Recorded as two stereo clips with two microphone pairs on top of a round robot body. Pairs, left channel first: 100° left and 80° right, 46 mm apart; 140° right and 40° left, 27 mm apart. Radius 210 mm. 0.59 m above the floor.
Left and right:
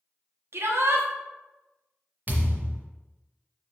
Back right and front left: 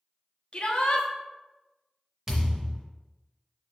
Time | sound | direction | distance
0.5 | a shout | 100° right | 1.2 m
2.3 | a thud | 25° right | 0.6 m